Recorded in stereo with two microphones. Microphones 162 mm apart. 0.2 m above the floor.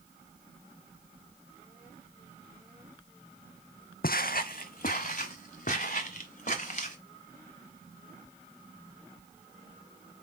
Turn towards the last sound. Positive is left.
turn(degrees=50)  # may be behind; listen again after turning